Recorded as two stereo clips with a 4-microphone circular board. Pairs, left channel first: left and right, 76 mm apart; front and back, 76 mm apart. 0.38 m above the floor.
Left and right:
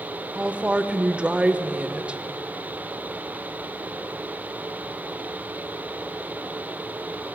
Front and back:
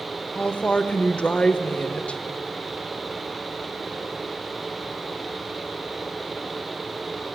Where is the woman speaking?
50° right, 0.8 m.